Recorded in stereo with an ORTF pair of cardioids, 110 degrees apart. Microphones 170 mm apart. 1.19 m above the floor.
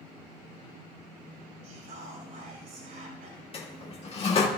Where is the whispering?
60° right, 4.5 m.